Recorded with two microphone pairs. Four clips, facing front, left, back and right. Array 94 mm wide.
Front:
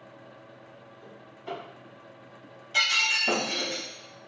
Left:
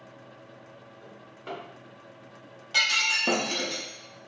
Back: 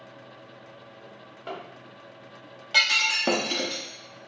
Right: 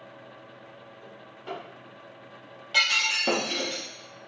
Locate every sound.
1.0 s a drawer: 150° left, 2.0 m
2.7 s breaking glass: 175° left, 0.8 m